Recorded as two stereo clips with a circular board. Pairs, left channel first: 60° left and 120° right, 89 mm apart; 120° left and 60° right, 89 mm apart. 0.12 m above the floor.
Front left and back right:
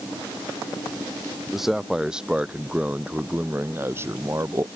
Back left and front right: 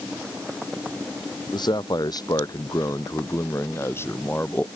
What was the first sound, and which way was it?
A man speaking, 155° left.